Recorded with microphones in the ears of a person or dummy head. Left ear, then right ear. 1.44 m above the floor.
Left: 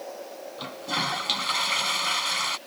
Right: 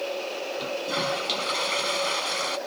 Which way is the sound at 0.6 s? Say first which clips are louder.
Left 1 dB; 10° left (ahead or behind).